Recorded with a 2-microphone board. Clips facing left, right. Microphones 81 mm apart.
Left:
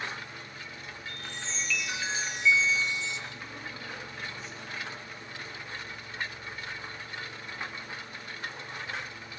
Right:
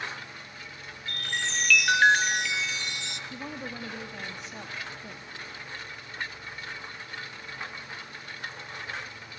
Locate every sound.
1.1 s a chime: 65° right (ahead or behind), 0.5 m
3.3 s a woman speaking: 80° right, 3 m